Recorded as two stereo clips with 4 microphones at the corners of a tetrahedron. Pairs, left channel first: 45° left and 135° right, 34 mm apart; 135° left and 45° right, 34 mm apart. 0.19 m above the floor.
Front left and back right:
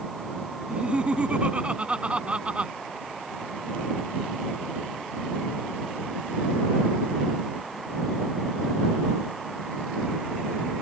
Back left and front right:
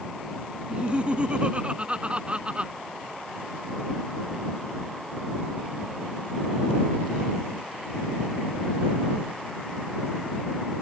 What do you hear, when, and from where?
0.7 s laughter: 90° right